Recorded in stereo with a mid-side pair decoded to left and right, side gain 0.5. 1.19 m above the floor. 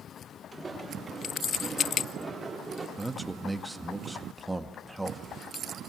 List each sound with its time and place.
0.5 s footsteps: 20° right, 8.5 m; by 2.9 s 10° right, 9 m
3.0 s a man speaking: 5° right, 1.8 m